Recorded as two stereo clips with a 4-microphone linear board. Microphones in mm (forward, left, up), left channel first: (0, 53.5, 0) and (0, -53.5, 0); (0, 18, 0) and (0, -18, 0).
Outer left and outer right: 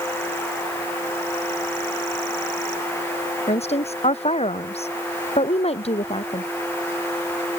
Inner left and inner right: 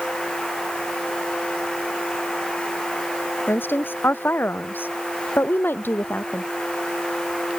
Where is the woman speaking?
80° left; by 6.5 s 70° left (ahead or behind).